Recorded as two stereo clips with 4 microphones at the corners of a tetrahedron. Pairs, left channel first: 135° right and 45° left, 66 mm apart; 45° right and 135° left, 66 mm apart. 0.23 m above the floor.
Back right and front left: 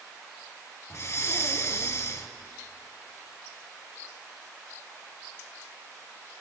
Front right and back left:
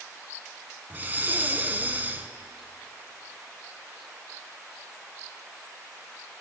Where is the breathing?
170° right, 0.9 m.